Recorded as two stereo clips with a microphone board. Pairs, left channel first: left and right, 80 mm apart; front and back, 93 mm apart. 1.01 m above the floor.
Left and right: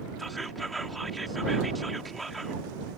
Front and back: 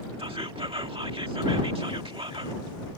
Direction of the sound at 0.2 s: Straight behind.